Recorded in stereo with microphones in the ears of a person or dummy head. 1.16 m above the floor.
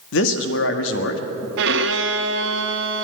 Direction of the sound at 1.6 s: 70° right (ahead or behind).